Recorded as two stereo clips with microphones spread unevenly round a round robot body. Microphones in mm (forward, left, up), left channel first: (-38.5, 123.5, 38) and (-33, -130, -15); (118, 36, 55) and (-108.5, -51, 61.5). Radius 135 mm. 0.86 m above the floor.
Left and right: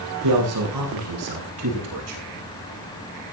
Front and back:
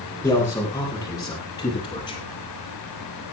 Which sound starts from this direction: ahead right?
A man speaking, at 0.2 s.